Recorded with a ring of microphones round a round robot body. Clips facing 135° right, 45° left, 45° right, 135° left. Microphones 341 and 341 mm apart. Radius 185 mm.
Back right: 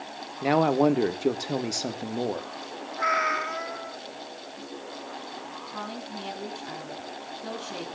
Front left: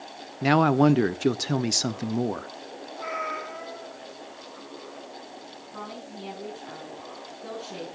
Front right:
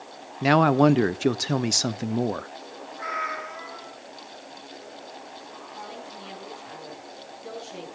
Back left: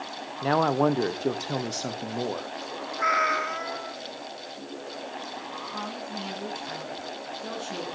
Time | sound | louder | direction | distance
0.4 | a man speaking | front left 2 dB, front right 5 dB | 10° right | 0.9 m
3.0 | a cat meowing | back right 3 dB, back left 7 dB | 170° left | 1.5 m
5.7 | a woman speaking | back right 2 dB, back left 6 dB | 140° left | 8.5 m